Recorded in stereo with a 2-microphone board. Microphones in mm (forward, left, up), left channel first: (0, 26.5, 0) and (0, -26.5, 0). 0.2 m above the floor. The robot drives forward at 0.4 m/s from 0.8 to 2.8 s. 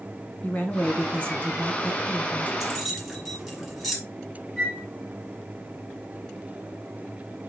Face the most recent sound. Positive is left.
turn(degrees=15)  # may be behind; listen again after turning